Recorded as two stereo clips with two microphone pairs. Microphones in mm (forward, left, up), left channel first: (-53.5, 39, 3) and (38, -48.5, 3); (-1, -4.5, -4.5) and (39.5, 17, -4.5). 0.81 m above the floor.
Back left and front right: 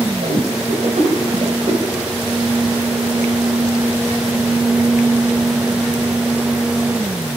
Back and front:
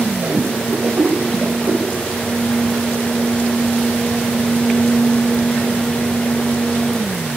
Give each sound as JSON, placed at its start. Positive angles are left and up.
{"t": 0.2, "sound": "a whoosh", "azimuth_deg": -15, "distance_m": 3.0}